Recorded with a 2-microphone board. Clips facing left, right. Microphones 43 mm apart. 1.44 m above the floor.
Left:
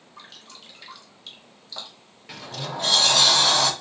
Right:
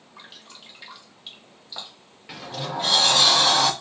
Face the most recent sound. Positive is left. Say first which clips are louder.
# right 2 dB
turn(degrees=-5)  # may be behind; listen again after turning